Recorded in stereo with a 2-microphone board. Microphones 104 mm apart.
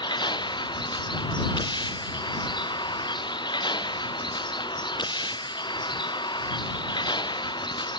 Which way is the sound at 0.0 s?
45° left (ahead or behind).